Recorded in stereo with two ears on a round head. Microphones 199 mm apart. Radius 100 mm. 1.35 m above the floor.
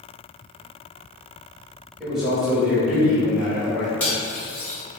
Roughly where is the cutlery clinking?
Centre.